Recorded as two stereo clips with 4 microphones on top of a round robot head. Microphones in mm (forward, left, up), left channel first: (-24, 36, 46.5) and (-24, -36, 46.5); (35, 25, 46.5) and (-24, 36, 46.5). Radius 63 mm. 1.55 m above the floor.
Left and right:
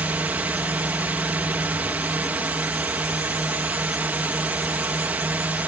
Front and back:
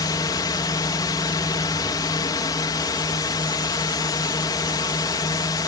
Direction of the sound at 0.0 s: 20° right.